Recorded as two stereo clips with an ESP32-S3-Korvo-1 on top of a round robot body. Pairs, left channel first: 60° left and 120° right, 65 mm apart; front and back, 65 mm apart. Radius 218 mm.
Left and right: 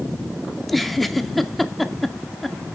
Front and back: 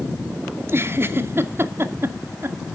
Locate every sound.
0.6 s a giggle: 150° left, 0.9 m